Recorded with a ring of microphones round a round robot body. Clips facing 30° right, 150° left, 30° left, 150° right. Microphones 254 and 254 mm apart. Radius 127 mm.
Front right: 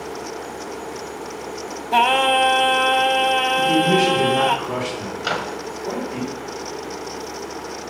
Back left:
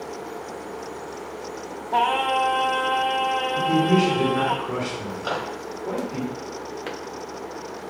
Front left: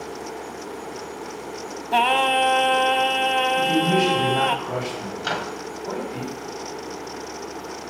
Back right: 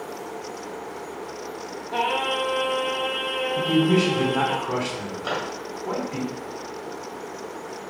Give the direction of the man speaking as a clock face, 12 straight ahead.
4 o'clock.